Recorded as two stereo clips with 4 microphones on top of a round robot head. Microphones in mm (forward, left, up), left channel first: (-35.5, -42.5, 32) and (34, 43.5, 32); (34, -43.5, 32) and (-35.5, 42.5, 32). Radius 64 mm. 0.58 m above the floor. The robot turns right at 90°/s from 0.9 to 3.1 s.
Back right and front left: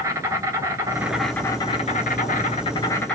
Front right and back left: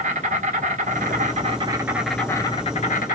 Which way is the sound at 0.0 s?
115° left.